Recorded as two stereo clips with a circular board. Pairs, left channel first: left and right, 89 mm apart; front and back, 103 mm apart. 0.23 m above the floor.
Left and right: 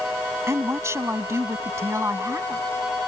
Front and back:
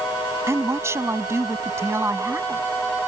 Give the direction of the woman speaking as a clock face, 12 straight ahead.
4 o'clock.